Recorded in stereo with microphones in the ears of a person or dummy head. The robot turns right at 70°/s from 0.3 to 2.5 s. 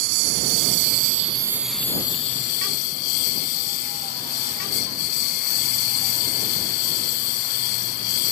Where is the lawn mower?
100° right; by 8.3 s 55° left.